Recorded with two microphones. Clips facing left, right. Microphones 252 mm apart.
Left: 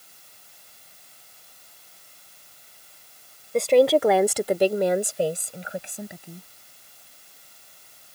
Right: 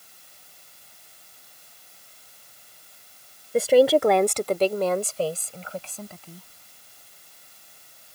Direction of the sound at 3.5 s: 5° right (ahead or behind).